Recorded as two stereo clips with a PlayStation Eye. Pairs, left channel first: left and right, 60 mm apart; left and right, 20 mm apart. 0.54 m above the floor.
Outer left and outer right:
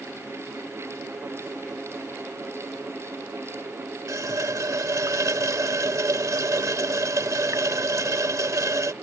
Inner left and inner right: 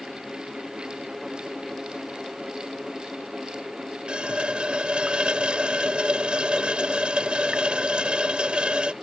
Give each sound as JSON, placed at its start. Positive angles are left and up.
{"t": 4.1, "sound": "a running tap", "side_deg": -70}